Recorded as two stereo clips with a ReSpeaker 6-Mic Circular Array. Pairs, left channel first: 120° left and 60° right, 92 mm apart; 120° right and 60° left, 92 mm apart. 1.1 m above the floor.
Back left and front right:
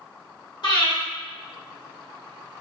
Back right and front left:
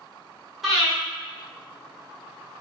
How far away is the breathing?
About 1.6 m.